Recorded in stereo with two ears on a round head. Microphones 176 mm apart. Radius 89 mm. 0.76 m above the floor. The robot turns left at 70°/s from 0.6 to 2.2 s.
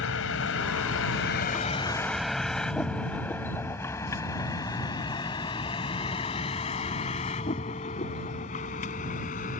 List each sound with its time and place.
0.0 s a vehicle: 85° left; by 9.6 s 40° left (ahead or behind)